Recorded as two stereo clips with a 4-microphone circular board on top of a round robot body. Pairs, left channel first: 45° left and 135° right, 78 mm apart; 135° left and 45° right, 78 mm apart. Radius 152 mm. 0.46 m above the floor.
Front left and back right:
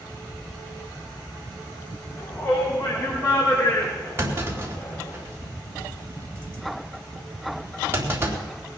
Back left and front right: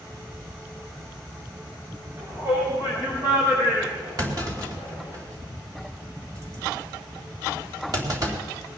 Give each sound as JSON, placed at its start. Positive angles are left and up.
{"t": 2.2, "sound": "a shout", "azimuth_deg": 0, "distance_m": 4.5}
{"t": 4.2, "sound": "a clunk", "azimuth_deg": -80, "distance_m": 3.5}